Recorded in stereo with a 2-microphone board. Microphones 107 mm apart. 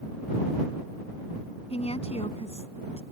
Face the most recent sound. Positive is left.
turn(degrees=70)  # may be behind; listen again after turning